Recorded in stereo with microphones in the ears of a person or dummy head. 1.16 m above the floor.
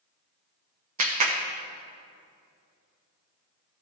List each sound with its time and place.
1.0 s a clap: 40° right (ahead or behind), 0.7 m